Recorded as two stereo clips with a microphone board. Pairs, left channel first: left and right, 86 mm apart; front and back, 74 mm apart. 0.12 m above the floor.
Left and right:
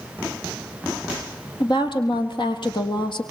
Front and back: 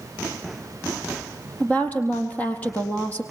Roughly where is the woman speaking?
Left.